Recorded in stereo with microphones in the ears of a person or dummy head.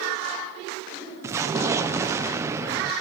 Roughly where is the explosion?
Centre.